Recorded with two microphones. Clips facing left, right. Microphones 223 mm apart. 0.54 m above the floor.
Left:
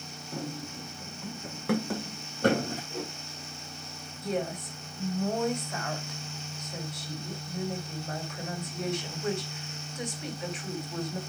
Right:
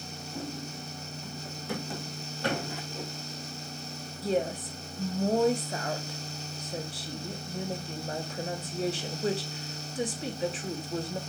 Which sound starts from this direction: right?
A woman speaking, at 4.2 s.